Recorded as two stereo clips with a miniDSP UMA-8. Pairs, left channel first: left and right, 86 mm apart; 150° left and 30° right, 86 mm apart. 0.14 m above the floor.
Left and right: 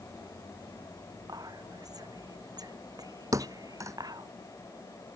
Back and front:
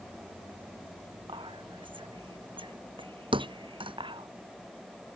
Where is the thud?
35° right.